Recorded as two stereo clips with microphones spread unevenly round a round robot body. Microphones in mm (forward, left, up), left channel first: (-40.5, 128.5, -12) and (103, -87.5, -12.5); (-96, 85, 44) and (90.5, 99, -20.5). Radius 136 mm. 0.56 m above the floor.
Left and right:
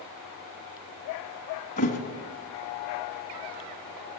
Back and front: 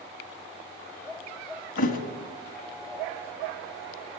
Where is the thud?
175° right, 2 m.